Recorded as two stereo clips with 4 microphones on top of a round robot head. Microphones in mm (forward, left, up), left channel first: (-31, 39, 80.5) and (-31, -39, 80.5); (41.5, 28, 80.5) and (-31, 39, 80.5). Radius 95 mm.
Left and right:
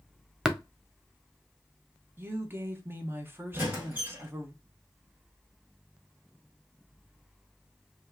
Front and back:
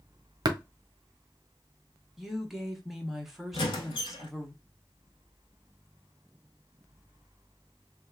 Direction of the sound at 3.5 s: 15° right.